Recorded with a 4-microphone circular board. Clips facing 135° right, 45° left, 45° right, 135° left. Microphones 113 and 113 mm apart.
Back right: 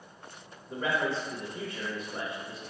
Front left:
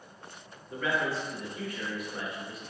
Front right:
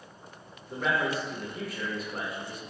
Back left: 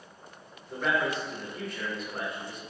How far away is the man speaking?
About 0.8 m.